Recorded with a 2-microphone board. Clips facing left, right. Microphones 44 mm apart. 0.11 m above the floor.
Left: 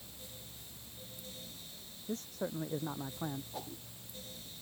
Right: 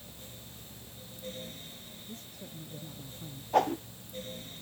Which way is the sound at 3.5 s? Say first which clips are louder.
Right 19 dB; 70° right (ahead or behind).